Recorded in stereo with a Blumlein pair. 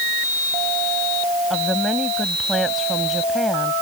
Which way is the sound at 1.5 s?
Straight ahead.